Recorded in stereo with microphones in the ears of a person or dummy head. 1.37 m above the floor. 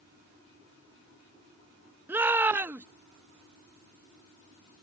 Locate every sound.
2.1 s a shout: 10° right (ahead or behind)